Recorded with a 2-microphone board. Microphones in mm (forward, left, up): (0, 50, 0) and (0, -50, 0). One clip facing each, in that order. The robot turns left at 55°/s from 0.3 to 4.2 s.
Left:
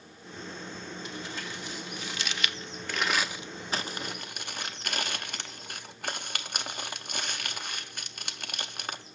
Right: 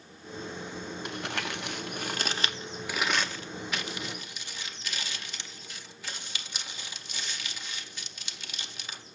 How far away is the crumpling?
About 0.5 m.